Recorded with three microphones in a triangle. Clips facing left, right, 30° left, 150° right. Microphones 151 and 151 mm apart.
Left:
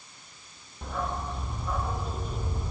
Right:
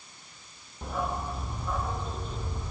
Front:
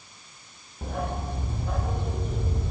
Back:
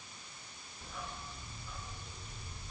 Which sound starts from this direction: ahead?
A dog barking, at 0.8 s.